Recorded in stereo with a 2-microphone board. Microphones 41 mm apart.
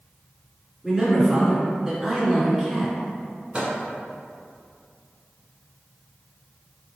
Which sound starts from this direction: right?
A microwave, at 3.5 s.